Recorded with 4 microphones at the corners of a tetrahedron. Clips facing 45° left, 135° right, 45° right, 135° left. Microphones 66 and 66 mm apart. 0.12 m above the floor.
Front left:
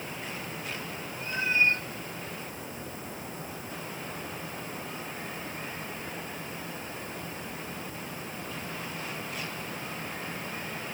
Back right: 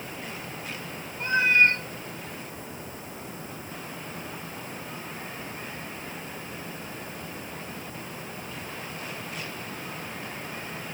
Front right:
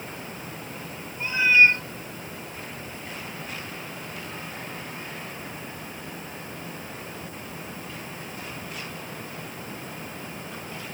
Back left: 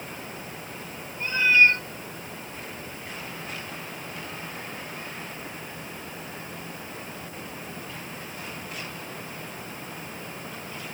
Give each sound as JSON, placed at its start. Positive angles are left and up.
{"t": 1.2, "sound": "a cat meowing", "azimuth_deg": -125, "distance_m": 1.2}